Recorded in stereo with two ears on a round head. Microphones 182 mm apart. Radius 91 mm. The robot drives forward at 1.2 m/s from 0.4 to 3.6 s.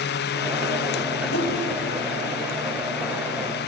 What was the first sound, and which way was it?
A whoosh, 70° left (ahead or behind).